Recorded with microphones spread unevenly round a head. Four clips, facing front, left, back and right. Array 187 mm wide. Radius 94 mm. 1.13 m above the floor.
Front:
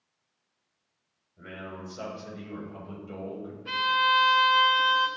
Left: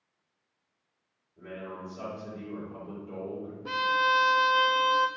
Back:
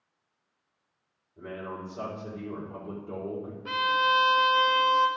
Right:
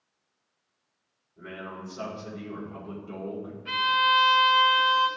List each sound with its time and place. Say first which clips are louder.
1.4 s a man speaking: right 1 dB, back 3 dB; 175° right, 4 m
3.6 s a violin: right 2 dB, even; 125° left, 0.7 m